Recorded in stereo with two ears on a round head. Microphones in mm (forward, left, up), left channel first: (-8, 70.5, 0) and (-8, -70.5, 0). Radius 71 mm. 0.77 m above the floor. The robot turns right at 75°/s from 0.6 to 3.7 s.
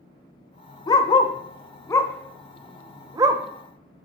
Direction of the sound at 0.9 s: 25° left (ahead or behind).